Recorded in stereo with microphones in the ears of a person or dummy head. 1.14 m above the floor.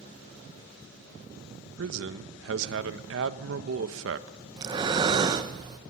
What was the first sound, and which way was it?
A man speaking, 70° right (ahead or behind).